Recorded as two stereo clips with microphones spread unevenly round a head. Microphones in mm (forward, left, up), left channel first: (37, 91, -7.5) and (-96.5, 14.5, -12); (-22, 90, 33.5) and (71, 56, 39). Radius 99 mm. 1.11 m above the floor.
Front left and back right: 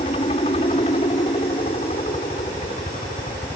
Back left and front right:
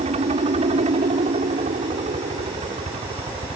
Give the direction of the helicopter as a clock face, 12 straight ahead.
1 o'clock.